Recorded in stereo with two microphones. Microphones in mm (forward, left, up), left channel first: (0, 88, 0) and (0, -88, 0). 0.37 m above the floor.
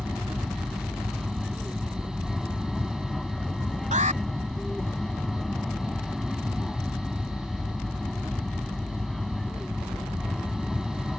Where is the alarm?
45° right (ahead or behind).